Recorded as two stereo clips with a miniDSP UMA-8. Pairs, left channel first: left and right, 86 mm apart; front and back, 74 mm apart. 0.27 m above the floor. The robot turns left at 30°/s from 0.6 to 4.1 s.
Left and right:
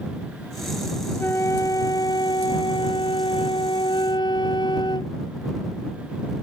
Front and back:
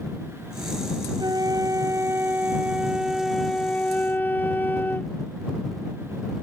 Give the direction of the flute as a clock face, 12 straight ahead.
7 o'clock.